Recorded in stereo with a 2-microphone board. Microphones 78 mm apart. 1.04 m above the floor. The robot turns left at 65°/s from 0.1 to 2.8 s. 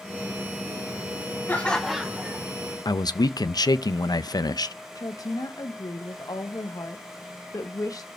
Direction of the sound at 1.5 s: 25° left.